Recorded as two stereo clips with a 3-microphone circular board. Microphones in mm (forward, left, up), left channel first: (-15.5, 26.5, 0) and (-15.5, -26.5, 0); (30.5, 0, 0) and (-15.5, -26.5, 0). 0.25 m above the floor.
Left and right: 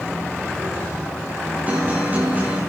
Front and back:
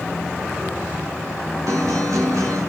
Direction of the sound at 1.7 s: 150° right.